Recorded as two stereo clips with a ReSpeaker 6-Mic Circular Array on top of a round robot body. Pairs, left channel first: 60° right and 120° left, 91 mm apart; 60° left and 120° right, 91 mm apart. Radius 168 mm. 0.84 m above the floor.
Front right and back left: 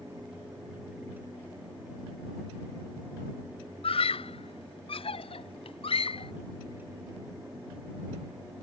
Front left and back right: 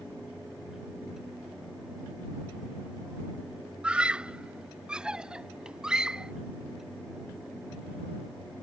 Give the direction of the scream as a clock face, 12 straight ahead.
1 o'clock.